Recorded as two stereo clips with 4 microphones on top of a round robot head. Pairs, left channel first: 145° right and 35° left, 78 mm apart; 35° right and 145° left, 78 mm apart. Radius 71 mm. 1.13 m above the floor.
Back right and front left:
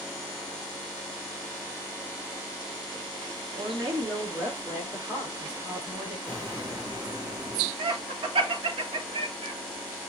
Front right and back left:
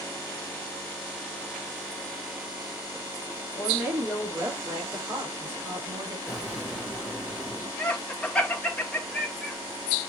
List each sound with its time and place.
3.5 s a woman speaking: 70° left, 2.0 m; by 6.2 s 85° left, 3 m
6.3 s an explosion: 60° left, 2.0 m
7.8 s laughter: 40° left, 1.0 m